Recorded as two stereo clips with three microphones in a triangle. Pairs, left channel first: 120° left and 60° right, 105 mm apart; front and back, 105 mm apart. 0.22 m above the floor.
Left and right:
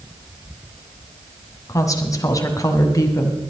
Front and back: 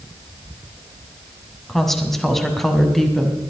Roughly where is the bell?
No bell in this recording.